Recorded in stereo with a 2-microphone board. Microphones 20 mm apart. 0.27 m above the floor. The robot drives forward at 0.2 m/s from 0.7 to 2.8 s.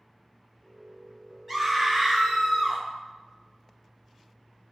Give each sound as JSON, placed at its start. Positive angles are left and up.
{"t": 1.5, "sound": "a scream", "side_deg": 0, "distance_m": 1.3}